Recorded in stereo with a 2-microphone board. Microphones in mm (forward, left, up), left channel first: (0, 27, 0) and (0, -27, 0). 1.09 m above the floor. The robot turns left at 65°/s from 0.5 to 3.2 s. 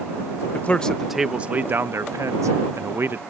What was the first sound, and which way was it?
A man speaking, 35° left.